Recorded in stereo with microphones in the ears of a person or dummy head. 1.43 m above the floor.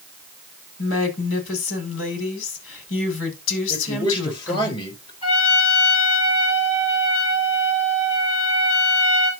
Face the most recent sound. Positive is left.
turn(degrees=35)  # may be behind; listen again after turning